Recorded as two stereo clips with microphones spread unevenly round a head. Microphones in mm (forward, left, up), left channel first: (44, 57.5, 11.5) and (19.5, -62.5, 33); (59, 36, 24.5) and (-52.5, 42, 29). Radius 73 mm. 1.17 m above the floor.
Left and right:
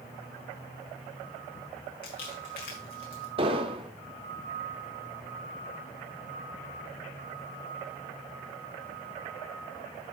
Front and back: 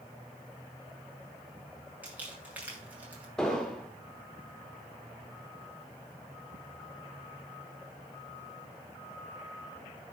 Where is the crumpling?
100° left, 5 m.